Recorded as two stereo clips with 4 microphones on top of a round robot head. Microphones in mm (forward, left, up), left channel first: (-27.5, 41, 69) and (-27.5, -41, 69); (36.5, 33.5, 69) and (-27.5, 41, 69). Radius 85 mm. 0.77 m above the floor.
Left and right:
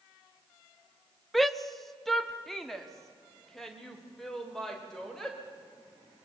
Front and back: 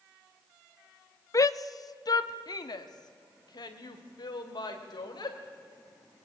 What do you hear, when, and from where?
1.3 s a shout: straight ahead, 1.0 m; by 5.4 s 5° left, 4 m